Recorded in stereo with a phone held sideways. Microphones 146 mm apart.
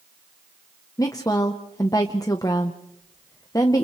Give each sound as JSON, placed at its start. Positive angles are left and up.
{"t": 1.0, "sound": "a woman speaking", "side_deg": 25, "distance_m": 1.0}